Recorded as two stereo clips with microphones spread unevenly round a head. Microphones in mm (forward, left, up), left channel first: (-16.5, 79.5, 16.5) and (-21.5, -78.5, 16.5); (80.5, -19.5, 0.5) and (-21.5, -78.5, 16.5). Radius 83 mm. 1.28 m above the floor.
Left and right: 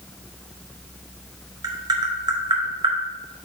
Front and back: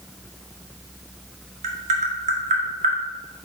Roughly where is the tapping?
Behind right.